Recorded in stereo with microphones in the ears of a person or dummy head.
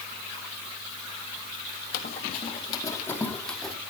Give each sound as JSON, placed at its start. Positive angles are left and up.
{"t": 1.9, "sound": "running footsteps", "side_deg": 40, "distance_m": 2.5}